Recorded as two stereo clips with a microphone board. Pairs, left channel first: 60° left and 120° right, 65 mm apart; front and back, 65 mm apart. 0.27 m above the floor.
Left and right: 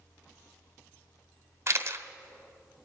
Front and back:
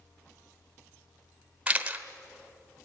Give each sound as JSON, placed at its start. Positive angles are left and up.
{"t": 1.7, "sound": "a camera shutter", "azimuth_deg": -120, "distance_m": 1.0}